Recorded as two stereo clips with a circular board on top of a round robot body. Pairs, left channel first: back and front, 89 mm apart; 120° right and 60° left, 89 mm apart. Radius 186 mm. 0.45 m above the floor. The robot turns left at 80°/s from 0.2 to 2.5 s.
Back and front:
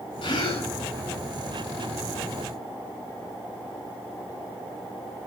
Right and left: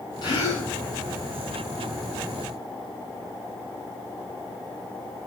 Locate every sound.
0.2 s a gasp: 155° right, 8 m; by 0.7 s 165° left, 8 m